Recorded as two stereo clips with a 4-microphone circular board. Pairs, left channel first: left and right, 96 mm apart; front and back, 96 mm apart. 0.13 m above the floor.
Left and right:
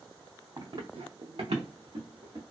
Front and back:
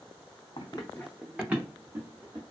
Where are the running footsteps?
40° right, 0.6 m; by 2.4 s 125° right, 1.4 m.